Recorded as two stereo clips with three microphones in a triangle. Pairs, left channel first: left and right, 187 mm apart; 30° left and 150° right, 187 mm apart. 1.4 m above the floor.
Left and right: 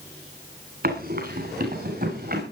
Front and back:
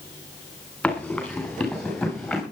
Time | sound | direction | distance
0.8 | running footsteps | 55° right | 9.5 m